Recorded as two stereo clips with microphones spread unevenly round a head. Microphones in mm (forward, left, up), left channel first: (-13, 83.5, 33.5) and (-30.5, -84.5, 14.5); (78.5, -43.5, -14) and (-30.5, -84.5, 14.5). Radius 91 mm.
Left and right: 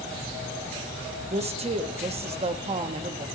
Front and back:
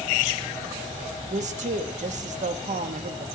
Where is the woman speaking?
140° right, 1.1 m.